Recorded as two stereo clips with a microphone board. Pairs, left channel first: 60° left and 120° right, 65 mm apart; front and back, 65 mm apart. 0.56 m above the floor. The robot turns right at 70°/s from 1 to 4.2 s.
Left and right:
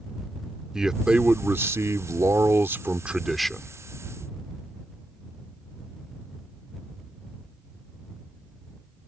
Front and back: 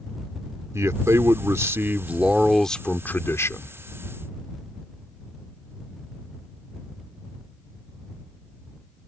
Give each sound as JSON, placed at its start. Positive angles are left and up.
{"t": 0.7, "sound": "a man speaking", "azimuth_deg": 160}